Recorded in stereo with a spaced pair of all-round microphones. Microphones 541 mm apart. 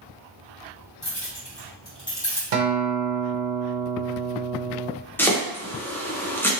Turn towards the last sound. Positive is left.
turn(degrees=5)  # may be behind; listen again after turning